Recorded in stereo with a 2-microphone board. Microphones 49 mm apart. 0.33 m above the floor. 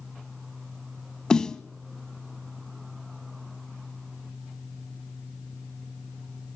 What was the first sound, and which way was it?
A snare drum, 15° left (ahead or behind).